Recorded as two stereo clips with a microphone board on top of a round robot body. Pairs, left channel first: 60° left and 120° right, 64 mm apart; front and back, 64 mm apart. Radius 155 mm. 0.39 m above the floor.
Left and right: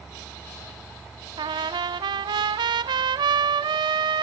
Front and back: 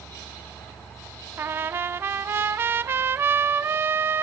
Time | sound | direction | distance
1.4 | a trumpet | 120° right | 0.5 m